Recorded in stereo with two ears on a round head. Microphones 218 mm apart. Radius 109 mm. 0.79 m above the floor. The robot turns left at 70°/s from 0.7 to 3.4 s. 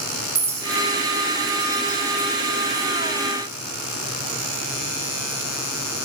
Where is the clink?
25° right (ahead or behind), 5.5 m; by 2.9 s centre (ahead or behind), 5.5 m.